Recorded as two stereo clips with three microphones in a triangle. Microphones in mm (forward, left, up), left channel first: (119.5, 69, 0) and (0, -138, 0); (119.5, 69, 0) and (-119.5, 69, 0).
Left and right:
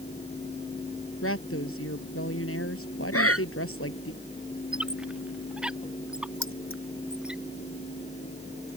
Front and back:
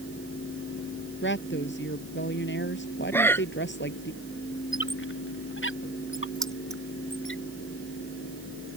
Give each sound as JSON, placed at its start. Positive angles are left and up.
{"t": 1.2, "sound": "a woman speaking", "azimuth_deg": 40}
{"t": 3.1, "sound": "breathing", "azimuth_deg": 80}
{"t": 4.7, "sound": "a squeak", "azimuth_deg": -35}
{"t": 6.4, "sound": "keys jangling", "azimuth_deg": 90}